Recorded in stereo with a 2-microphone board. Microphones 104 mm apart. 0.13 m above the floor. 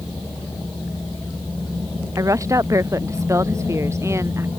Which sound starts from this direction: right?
A woman speaking, at 2.2 s.